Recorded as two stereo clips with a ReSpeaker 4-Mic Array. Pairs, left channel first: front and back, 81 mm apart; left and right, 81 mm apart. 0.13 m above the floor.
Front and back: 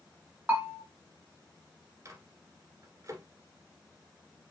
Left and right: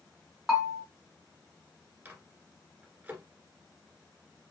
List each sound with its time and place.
0.5 s a bell: 160° right, 1.7 m
2.0 s a microwave: 150° right, 1.6 m